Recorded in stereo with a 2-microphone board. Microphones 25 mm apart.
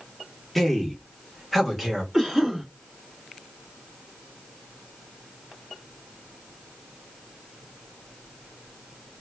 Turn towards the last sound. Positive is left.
turn(degrees=-15)  # may be behind; listen again after turning